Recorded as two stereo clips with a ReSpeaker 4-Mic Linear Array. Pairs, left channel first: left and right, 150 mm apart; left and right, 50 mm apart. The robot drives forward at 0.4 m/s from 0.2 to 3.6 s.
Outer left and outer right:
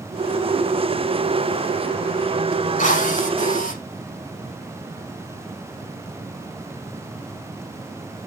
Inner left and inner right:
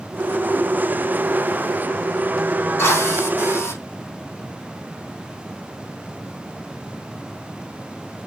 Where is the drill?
55° left (ahead or behind), 5.5 m; by 3.8 s 60° left (ahead or behind), 5.5 m.